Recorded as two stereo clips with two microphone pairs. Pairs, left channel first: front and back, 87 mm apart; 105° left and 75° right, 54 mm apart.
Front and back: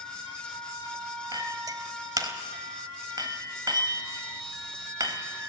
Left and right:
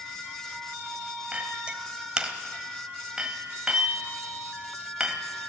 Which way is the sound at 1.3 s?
145° right.